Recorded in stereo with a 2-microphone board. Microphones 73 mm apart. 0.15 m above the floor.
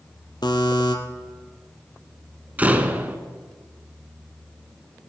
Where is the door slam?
20° right (ahead or behind), 1.3 m.